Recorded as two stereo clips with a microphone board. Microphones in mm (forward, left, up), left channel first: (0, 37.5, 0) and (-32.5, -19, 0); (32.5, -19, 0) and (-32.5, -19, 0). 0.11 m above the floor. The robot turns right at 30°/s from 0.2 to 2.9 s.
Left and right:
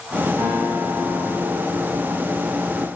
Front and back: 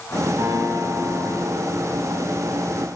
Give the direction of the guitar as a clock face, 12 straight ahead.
6 o'clock.